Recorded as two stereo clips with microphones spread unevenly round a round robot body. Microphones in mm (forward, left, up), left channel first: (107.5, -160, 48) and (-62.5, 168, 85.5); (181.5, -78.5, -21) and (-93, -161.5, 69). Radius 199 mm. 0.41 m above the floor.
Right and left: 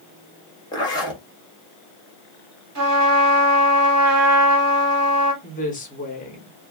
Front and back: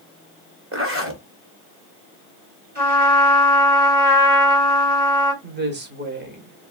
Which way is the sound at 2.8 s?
120° left.